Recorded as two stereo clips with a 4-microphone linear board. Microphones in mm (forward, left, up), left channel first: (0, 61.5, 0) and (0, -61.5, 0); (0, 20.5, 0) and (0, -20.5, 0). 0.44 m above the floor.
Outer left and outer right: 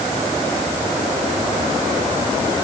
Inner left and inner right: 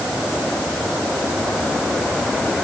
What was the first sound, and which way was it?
Only background noise.